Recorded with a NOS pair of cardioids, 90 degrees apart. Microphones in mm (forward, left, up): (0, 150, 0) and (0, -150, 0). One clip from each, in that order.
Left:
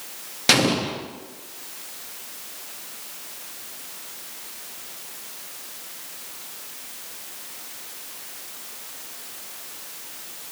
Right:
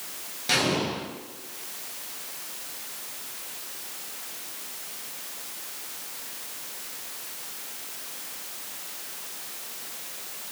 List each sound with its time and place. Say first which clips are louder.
0.5 s an explosion: left 5 dB; 60° left, 0.7 m